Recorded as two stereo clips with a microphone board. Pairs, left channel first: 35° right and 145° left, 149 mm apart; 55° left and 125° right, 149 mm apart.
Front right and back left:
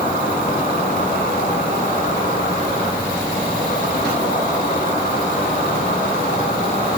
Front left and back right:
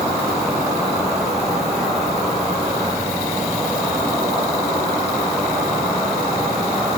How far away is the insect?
About 3 m.